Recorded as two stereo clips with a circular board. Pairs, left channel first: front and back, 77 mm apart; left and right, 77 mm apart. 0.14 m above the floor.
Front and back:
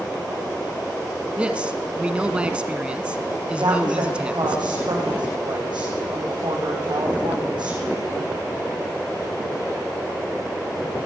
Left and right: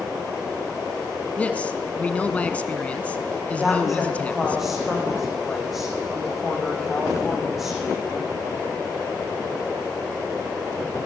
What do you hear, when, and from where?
1.4 s a man speaking: 130° left, 1.2 m
3.6 s a woman speaking: straight behind, 7 m